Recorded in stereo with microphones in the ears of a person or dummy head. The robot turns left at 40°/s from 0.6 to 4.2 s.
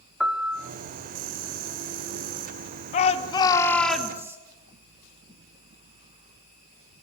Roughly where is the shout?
Ahead left.